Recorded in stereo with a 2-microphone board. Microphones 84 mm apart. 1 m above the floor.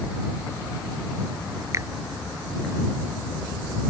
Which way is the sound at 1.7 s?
35° right (ahead or behind).